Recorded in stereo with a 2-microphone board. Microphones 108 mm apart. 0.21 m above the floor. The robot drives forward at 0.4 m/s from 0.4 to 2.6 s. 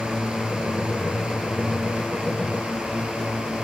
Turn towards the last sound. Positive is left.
turn(degrees=-10)  # may be behind; listen again after turning